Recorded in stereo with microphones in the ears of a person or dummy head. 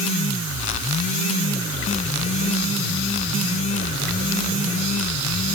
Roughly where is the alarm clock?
I don't hear an alarm clock.